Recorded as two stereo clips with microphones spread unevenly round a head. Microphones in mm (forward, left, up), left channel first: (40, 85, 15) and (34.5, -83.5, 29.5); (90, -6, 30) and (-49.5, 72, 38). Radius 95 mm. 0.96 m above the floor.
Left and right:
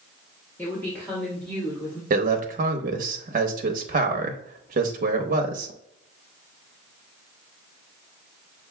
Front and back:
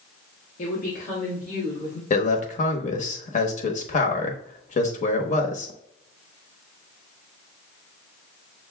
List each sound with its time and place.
0.6 s a woman speaking: 10° left, 1.2 m; by 2.0 s 5° left, 2.5 m
2.1 s a man speaking: 60° right, 0.8 m